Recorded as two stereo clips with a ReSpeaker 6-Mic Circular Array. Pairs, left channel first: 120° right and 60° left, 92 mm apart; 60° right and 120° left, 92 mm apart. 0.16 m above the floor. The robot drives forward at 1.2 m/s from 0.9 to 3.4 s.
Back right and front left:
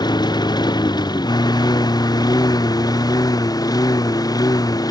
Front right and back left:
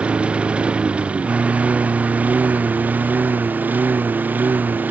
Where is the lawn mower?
160° right; by 4.9 s 170° right.